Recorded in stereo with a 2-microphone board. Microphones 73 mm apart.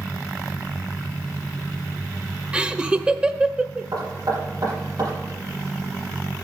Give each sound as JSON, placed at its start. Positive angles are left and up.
{"t": 2.5, "sound": "laughter", "side_deg": -15, "distance_m": 0.8}
{"t": 3.9, "sound": "knocking", "side_deg": -60, "distance_m": 8.0}